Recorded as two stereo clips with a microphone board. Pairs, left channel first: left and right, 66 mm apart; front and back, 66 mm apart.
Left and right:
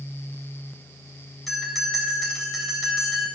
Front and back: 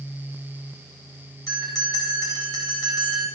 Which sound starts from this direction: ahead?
A bell, at 1.5 s.